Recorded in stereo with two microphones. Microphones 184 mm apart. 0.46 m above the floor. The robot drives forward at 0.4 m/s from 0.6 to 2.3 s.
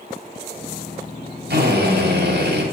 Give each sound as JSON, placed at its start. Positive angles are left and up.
{"t": 1.5, "sound": "a drill", "side_deg": -70, "distance_m": 2.0}